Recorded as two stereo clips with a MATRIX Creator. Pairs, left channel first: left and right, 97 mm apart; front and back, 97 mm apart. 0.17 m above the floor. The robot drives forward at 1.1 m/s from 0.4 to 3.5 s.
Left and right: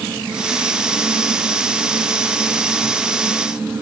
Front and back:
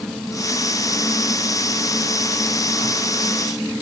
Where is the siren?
No siren in this recording.